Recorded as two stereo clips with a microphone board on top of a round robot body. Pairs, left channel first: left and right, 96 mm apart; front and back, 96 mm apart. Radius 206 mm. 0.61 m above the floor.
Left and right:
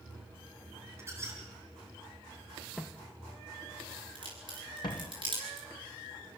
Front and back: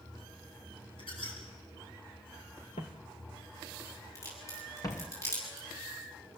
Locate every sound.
1.0 s a squeak: 30° right, 4.5 m
2.8 s footsteps: 10° left, 0.7 m; by 5.1 s 50° left, 2 m
4.2 s a crack: 60° right, 8 m